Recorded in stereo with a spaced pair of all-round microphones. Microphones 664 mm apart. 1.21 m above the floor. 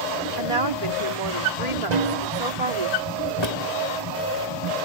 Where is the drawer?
40° left (ahead or behind).